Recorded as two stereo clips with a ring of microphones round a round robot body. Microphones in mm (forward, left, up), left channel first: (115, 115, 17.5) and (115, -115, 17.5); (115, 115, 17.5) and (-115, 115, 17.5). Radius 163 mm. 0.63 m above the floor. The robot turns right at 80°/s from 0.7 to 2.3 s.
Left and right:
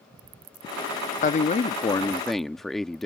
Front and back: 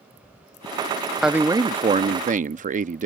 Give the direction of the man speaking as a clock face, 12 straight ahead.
9 o'clock.